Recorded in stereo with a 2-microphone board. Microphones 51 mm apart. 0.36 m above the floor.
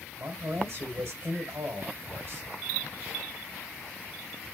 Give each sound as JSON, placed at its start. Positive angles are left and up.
{"t": 0.2, "sound": "a man speaking", "side_deg": -60, "distance_m": 1.8}